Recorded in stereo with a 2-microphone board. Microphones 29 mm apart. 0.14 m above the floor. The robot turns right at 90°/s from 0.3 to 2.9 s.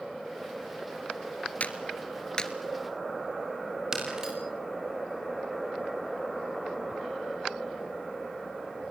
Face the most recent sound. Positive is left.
turn(degrees=-25)  # may be behind; listen again after turning